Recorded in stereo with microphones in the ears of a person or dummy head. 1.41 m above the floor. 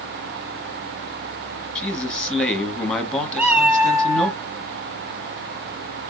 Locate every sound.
1.8 s a man speaking: 5° left (ahead or behind), 1.0 m
3.4 s a cat meowing: 15° right (ahead or behind), 1.3 m